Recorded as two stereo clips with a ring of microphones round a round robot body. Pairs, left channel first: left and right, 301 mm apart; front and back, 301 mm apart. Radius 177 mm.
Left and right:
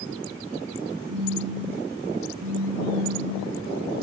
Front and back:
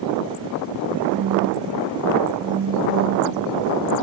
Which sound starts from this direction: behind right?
A phone buzzing, at 1.1 s.